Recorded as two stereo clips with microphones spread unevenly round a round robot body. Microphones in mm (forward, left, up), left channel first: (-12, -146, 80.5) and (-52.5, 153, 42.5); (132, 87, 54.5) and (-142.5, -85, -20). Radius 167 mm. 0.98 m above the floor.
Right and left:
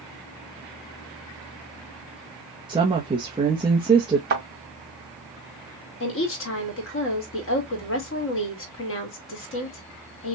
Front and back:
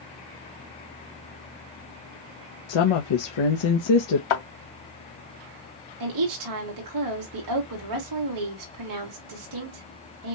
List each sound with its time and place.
2.7 s a woman speaking: 25° left, 0.9 m
4.3 s a thud: 35° left, 2.5 m
6.0 s a woman speaking: 135° right, 2.5 m